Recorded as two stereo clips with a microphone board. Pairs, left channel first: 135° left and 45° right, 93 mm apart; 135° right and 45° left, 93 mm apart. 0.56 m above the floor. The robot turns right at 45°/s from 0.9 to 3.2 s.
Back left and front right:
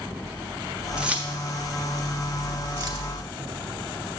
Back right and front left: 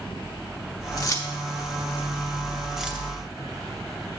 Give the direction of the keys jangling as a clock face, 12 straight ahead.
4 o'clock.